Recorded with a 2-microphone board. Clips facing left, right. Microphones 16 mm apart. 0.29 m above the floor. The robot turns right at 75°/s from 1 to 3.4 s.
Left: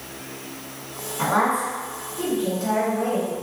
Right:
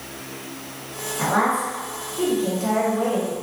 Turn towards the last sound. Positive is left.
turn(degrees=-20)